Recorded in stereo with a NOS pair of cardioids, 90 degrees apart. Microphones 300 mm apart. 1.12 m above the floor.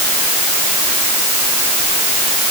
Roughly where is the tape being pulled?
I don't hear tape being pulled.